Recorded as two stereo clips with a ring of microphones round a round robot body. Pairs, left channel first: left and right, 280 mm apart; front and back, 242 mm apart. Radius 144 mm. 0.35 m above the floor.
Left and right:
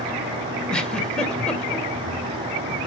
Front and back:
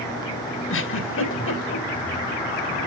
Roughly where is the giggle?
Ahead.